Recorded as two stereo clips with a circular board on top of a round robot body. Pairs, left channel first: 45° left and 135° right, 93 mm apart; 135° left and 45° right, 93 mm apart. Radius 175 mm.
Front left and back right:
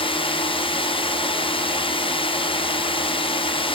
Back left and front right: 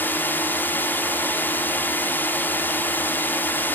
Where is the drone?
65° left.